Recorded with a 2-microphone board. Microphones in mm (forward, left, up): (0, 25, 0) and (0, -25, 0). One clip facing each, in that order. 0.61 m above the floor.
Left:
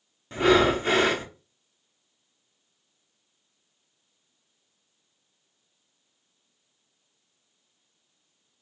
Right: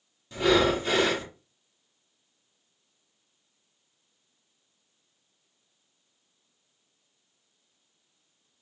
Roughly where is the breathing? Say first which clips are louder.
Left 3 dB; left.